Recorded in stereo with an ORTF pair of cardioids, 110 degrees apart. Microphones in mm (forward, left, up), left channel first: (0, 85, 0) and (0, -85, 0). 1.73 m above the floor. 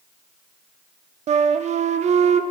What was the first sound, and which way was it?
A flute, 40° right.